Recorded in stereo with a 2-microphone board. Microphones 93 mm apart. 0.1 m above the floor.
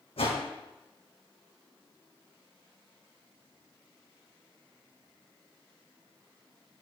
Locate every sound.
0.2 s a whoosh: 80° left, 1.8 m